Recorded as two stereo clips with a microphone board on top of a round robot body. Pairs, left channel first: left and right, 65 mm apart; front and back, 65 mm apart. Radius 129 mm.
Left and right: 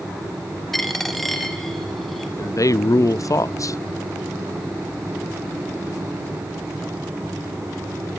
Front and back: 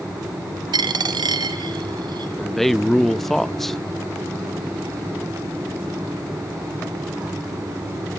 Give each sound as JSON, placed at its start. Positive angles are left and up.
{"t": 0.7, "sound": "a dropped coin", "azimuth_deg": 180, "distance_m": 1.0}
{"t": 2.4, "sound": "a man speaking", "azimuth_deg": 85, "distance_m": 0.6}